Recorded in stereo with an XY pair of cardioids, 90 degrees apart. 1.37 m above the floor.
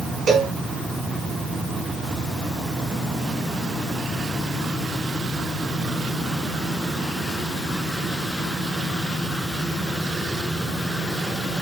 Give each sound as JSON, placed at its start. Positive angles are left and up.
{"t": 0.3, "sound": "a cowbell", "azimuth_deg": -60, "distance_m": 6.5}